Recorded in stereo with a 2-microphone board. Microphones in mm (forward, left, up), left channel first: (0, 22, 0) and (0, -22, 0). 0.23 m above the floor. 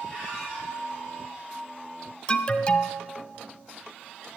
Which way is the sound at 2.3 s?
20° left (ahead or behind).